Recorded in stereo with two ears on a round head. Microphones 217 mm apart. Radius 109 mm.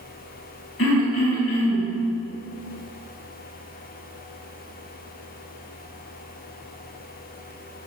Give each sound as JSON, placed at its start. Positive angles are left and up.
{"t": 0.8, "sound": "throat clearing", "side_deg": 55, "distance_m": 4.5}